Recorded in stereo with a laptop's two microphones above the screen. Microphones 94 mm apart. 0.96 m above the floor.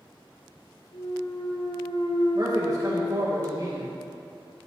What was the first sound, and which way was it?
A clunk, 60° left (ahead or behind).